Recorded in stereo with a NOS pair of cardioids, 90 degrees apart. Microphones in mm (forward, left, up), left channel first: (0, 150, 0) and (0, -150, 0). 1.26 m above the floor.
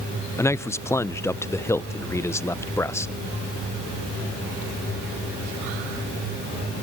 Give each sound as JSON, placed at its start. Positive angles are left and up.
{"t": 0.4, "sound": "a man speaking", "azimuth_deg": 10, "distance_m": 0.5}